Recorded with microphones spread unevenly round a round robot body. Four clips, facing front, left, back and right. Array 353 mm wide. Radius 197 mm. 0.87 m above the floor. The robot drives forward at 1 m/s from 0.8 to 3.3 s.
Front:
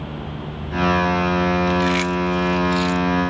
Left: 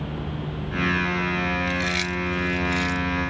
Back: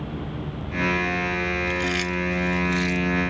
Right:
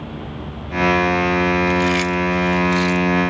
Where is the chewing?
35° right; by 3.1 s 65° right.